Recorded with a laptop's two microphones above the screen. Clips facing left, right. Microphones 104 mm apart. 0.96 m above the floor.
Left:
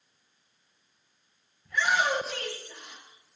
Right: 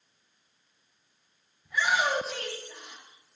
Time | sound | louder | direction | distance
1.6 | a shout | left 1 dB | 10° right (ahead or behind) | 5.5 m